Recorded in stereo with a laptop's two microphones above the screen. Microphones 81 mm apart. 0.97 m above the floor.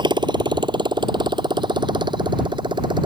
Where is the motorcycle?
80° right; by 3.1 s 85° right.